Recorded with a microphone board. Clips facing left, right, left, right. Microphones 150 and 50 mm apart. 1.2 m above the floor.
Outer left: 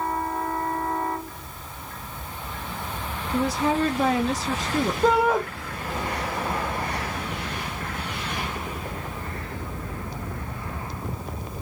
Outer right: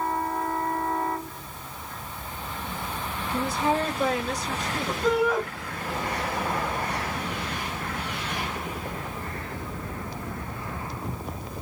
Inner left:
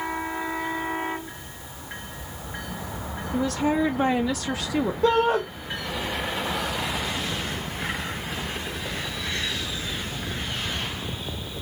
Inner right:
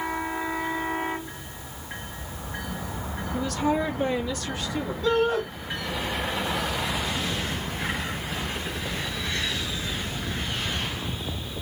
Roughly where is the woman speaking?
Left.